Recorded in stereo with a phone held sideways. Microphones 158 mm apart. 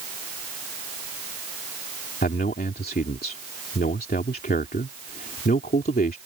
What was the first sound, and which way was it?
A man speaking, 75° left (ahead or behind).